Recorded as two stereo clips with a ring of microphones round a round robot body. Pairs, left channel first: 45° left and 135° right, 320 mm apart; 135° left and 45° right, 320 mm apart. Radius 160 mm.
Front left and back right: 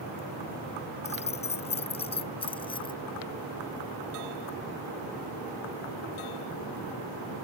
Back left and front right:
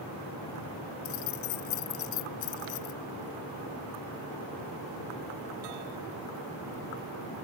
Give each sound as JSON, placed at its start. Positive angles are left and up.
{"t": 1.1, "sound": "keys jangling", "azimuth_deg": 115}